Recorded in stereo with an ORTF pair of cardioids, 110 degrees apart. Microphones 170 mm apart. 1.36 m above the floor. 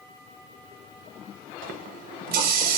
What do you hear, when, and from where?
1.6 s a running tap: 65° right, 1.1 m